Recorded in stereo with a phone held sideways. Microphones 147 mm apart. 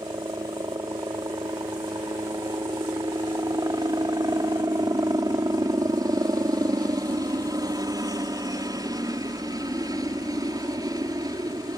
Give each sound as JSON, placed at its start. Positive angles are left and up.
{"t": 0.0, "sound": "a helicopter", "side_deg": -25}